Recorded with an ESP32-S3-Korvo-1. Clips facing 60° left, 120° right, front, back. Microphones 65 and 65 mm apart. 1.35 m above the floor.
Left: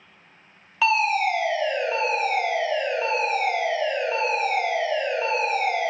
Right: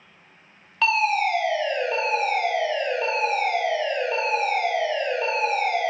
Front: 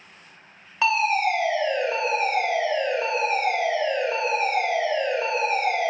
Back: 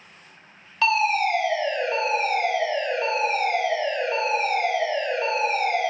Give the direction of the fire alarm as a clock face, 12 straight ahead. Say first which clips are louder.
Even, even; 1 o'clock.